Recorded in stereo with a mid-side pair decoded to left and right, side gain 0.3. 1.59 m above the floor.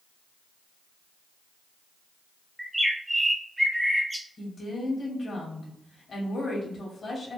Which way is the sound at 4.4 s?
55° left.